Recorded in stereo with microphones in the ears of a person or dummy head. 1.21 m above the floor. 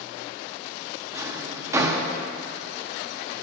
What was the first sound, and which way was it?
A drawer, 20° right (ahead or behind).